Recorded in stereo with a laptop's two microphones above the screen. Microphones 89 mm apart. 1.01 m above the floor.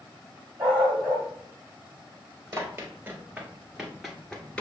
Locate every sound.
0.6 s a dog barking: 30° right (ahead or behind), 2.5 m
2.5 s running footsteps: 30° right (ahead or behind), 1.1 m; by 4.6 s 10° left (ahead or behind), 1.1 m